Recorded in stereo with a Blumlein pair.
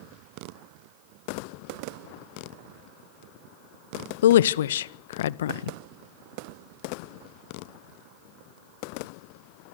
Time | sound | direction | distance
4.2 | a woman speaking | 60° left | 0.7 m